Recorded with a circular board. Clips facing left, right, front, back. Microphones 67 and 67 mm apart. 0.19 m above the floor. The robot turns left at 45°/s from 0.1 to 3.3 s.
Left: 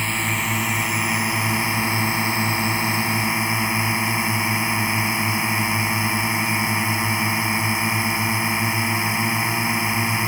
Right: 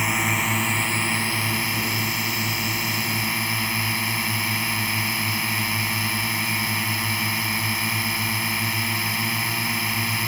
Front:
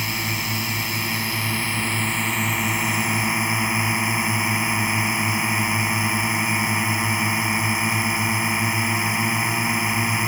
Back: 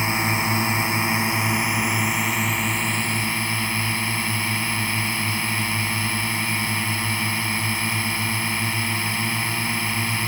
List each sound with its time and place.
0.0 s a drone: 165° right; by 10.3 s 50° left